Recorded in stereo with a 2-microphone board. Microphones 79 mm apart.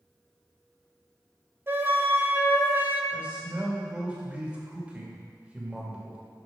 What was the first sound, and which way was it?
A flute, 30° right (ahead or behind).